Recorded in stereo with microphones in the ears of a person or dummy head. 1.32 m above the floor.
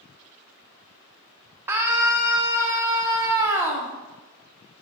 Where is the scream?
10° right (ahead or behind), 0.7 m.